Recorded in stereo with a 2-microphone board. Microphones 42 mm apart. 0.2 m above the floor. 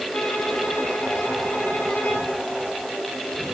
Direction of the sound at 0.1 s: 45° left (ahead or behind).